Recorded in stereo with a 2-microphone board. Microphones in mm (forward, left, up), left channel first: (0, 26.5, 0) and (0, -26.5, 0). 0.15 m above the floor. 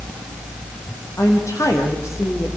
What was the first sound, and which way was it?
A woman speaking, 70° left (ahead or behind).